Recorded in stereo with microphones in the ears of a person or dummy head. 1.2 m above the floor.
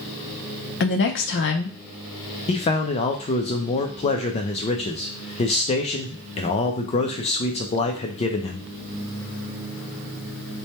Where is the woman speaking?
55° left (ahead or behind), 0.7 m.